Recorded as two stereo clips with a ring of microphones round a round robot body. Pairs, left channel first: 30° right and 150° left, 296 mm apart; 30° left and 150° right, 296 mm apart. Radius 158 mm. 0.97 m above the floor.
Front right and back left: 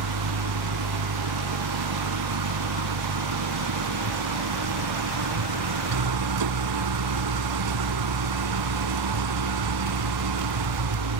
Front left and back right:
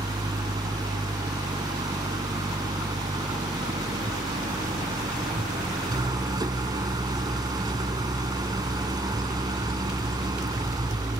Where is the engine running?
130° left.